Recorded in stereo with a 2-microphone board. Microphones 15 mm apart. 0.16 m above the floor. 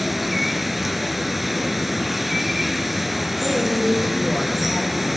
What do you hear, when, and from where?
0.0 s running water: 15° right (ahead or behind), 0.8 m
3.4 s a man speaking: 15° right (ahead or behind), 3 m